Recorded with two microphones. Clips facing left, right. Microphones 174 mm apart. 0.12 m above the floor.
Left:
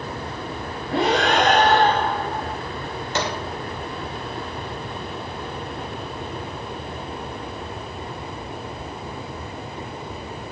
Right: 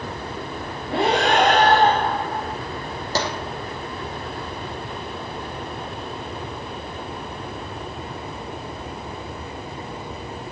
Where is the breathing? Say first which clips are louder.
Even; 30° right (ahead or behind), 7 m.